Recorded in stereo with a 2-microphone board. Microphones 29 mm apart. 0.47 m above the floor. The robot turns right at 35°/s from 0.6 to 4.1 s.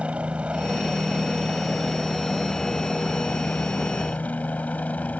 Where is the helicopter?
45° right (ahead or behind); by 5.2 s 65° left (ahead or behind).